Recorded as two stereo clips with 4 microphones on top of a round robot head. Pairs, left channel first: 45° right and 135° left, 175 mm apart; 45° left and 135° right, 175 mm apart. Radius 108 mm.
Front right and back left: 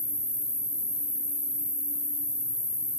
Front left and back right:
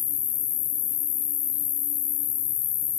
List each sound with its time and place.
0.0 s an insect: 40° left, 1.4 m